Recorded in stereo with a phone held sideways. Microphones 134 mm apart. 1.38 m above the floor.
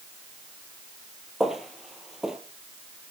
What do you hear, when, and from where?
1.4 s footsteps: 5° right (ahead or behind), 1.6 m